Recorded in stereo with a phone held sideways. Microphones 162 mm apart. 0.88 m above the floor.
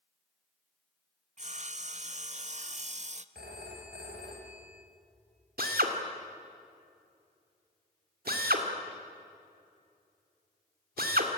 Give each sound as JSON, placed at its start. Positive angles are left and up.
{"t": 1.4, "sound": "sawing", "side_deg": -45, "distance_m": 0.6}
{"t": 3.4, "sound": "a phone ringing", "side_deg": -80, "distance_m": 3.5}
{"t": 5.6, "sound": "a drill", "side_deg": -65, "distance_m": 2.0}